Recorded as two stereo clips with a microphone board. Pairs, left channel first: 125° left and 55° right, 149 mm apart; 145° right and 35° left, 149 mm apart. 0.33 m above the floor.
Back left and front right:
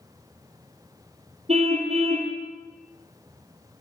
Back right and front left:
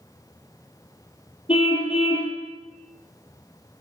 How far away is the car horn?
About 3.5 m.